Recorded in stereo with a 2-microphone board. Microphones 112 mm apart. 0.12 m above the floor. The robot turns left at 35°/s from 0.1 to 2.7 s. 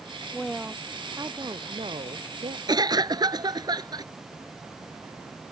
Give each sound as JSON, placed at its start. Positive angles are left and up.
{"t": 0.3, "sound": "a woman speaking", "azimuth_deg": 0}
{"t": 2.7, "sound": "a cough", "side_deg": -40}